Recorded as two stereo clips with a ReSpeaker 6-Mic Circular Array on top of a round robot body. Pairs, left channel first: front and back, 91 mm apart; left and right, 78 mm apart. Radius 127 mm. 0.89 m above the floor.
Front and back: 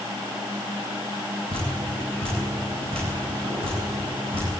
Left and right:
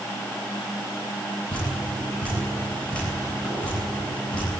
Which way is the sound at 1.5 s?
165° left.